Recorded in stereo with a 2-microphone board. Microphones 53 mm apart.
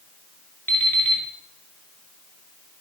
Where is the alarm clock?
40° left (ahead or behind), 1.1 m.